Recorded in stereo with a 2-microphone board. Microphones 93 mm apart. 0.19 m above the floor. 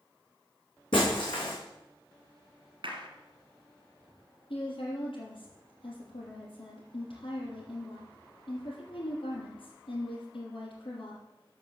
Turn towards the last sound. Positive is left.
turn(degrees=75)  # may be behind; listen again after turning